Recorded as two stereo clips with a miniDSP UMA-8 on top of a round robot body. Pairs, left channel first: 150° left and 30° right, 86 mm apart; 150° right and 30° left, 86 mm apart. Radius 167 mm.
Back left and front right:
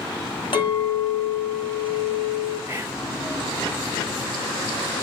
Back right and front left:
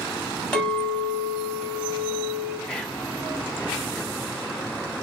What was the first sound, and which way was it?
A clink, 125° left.